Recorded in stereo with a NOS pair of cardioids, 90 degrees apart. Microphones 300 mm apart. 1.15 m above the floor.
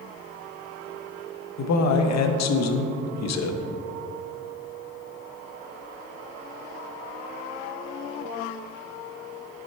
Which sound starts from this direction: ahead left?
A man speaking, at 1.6 s.